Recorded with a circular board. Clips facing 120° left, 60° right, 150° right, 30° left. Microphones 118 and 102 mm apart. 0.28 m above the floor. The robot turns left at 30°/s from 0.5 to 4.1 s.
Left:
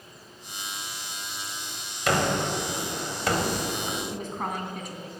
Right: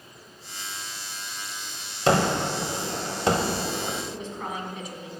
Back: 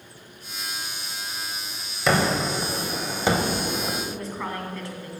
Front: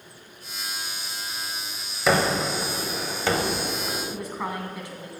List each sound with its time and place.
2.1 s a gunshot: 55° right, 0.8 m; by 4.0 s 115° right, 0.8 m
4.1 s a woman speaking: 100° left, 1.8 m